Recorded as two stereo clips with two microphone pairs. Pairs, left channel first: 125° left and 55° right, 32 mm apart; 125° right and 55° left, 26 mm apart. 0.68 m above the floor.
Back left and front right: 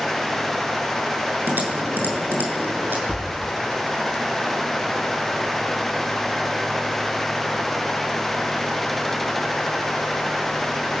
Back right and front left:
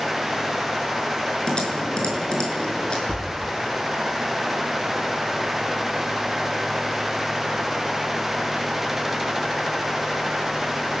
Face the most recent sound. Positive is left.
turn(degrees=-165)